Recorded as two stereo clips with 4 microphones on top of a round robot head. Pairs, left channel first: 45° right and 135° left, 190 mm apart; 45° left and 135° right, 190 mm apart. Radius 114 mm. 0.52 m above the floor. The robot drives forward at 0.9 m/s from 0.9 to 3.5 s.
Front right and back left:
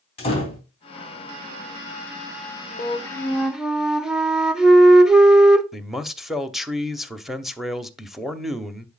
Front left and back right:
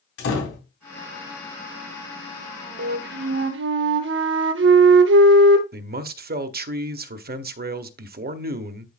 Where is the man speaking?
135° right, 0.9 m.